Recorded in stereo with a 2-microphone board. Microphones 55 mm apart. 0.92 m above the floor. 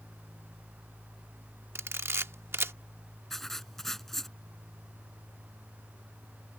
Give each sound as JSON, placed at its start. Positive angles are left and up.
{"t": 1.8, "sound": "a camera shutter", "side_deg": -50}
{"t": 3.3, "sound": "writing", "side_deg": 5}